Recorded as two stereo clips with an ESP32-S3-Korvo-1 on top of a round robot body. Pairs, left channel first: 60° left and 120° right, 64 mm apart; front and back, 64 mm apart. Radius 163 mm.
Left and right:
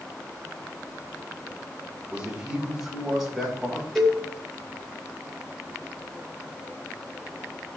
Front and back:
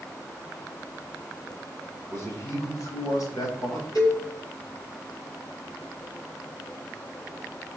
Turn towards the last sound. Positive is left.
turn(degrees=-30)